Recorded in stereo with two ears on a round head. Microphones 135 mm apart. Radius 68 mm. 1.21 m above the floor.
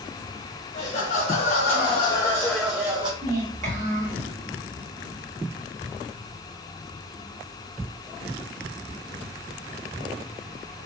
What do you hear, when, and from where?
0.7 s laughter: 55° left (ahead or behind), 1.3 m; by 3.1 s 35° right (ahead or behind), 0.5 m
3.2 s a child speaking: 50° right (ahead or behind), 1.6 m